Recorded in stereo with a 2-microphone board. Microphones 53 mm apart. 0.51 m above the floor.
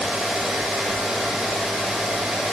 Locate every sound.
Only background noise.